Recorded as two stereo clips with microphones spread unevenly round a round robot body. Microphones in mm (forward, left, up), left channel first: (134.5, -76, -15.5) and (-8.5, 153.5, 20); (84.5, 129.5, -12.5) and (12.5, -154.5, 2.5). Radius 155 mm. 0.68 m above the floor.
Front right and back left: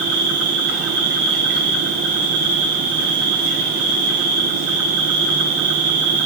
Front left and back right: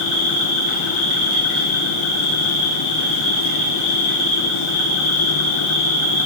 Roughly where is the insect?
Behind left.